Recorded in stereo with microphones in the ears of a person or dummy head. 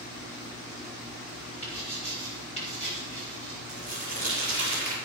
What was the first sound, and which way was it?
Writing, 30° left (ahead or behind).